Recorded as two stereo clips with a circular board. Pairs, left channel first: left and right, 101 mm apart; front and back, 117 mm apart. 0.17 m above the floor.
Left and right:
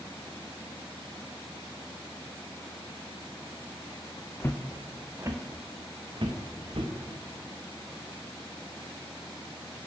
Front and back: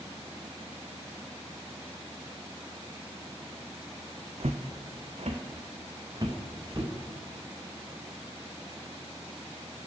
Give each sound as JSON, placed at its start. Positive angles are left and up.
{"t": 4.4, "sound": "footsteps", "azimuth_deg": 150, "distance_m": 0.7}